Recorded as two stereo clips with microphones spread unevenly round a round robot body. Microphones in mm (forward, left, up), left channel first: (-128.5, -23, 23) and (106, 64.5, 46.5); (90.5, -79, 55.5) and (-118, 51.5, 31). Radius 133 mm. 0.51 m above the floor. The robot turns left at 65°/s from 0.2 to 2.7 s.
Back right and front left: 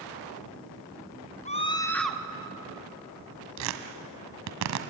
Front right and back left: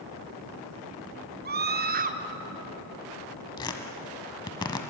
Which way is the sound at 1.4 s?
160° left.